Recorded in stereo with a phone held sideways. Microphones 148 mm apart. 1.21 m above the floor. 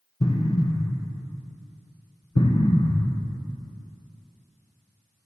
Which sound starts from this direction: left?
An explosion, at 0.2 s.